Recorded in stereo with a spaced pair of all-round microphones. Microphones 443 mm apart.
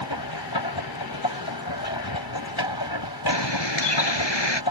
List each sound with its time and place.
0.0 s a machine running: 60° left (ahead or behind)
3.3 s a bird: 75° left (ahead or behind)